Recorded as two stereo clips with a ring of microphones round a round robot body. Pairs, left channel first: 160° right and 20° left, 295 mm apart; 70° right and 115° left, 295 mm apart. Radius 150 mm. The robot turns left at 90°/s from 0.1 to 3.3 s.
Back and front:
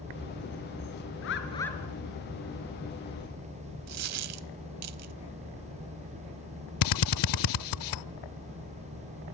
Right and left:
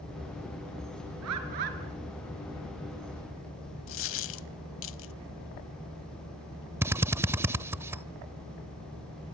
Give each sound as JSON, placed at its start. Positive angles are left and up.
{"t": 1.2, "sound": "a bird", "azimuth_deg": 160, "distance_m": 3.5}
{"t": 3.9, "sound": "a dropped coin", "azimuth_deg": -20, "distance_m": 0.7}
{"t": 6.8, "sound": "a drill", "azimuth_deg": -165, "distance_m": 0.6}